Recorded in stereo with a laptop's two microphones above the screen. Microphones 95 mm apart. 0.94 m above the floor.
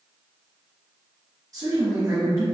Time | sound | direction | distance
1.5 | a man speaking | 40° right (ahead or behind) | 1.1 m